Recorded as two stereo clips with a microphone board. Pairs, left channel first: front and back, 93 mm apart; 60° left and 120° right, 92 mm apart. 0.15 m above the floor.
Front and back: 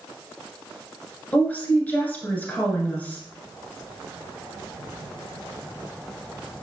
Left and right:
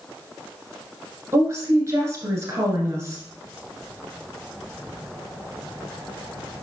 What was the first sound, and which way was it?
A woman speaking, 70° right.